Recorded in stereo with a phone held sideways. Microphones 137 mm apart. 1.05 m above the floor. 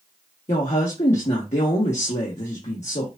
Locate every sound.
0.5 s a woman speaking: 55° left (ahead or behind), 1.5 m